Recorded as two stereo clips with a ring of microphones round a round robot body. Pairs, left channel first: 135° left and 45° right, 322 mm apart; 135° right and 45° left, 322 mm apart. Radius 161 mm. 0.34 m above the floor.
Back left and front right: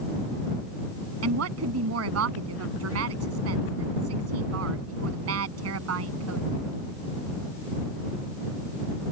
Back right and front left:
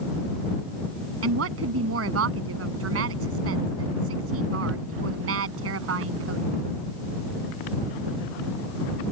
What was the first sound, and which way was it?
A woman speaking, straight ahead.